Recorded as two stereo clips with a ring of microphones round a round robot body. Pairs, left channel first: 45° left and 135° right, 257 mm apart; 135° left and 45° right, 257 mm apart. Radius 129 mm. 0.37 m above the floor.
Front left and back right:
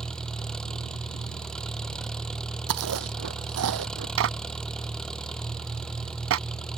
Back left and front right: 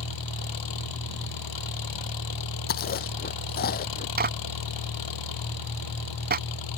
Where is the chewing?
170° right.